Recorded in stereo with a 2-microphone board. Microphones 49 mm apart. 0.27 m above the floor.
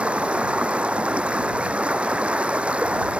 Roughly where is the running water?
Right.